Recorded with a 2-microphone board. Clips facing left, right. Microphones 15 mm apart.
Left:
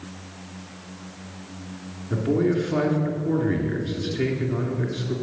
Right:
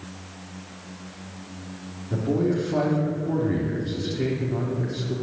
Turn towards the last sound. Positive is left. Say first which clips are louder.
# left 2 dB
turn(degrees=30)  # may be behind; listen again after turning